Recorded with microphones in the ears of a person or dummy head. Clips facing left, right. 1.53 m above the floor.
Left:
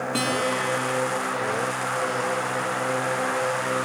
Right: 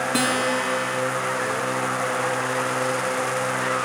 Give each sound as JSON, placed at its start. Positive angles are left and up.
{"t": 0.1, "sound": "a guitar", "side_deg": -15, "distance_m": 1.2}